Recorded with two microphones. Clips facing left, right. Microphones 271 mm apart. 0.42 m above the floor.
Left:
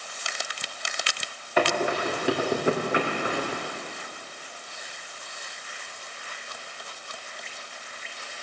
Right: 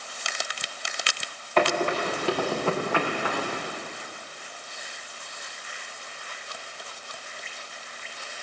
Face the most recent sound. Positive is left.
turn(degrees=30)  # may be behind; listen again after turning